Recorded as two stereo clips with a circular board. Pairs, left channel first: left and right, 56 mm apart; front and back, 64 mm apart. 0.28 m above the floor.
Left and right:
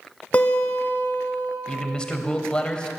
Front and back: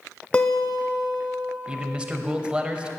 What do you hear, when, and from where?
0.3 s a guitar: 55° left, 1.1 m
1.7 s a man speaking: 135° left, 1.0 m